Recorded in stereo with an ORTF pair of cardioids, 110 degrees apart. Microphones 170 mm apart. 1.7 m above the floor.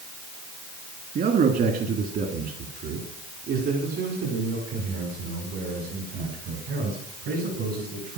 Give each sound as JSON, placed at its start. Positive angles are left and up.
{"t": 1.1, "sound": "a man speaking", "azimuth_deg": -55, "distance_m": 3.0}